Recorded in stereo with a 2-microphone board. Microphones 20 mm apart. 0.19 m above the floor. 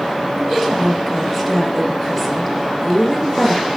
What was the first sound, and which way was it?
A woman speaking, 5° right (ahead or behind).